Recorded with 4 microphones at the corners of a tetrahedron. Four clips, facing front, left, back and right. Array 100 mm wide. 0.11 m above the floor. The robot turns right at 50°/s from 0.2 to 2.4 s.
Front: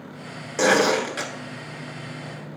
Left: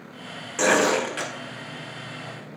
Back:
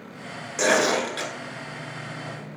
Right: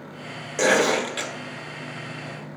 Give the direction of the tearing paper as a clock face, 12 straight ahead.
1 o'clock.